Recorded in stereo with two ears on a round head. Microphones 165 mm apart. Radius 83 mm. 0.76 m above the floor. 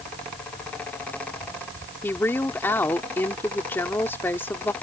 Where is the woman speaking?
10° left (ahead or behind).